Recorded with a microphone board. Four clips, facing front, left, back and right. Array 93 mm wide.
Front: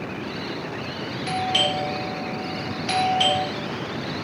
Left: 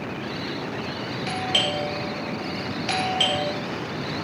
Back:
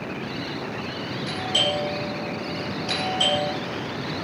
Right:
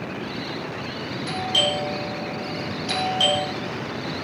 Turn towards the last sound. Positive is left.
turn(degrees=60)